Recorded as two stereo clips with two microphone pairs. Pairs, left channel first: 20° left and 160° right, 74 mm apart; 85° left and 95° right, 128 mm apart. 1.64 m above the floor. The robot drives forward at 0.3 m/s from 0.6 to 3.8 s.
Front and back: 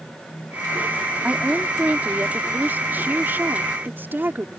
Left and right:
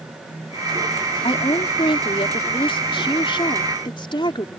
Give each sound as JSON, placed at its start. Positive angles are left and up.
{"t": 1.2, "sound": "a woman speaking", "azimuth_deg": 130}